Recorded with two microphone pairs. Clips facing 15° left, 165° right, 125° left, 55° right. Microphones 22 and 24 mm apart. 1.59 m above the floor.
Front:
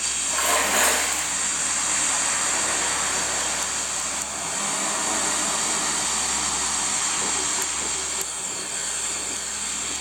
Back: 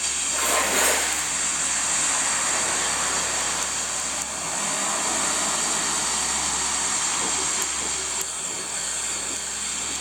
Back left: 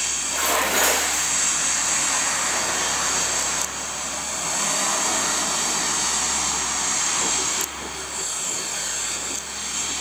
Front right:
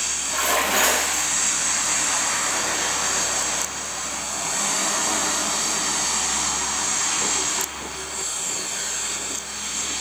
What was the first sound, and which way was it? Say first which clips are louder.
A splash: front 1 dB, front right 1 dB; straight ahead.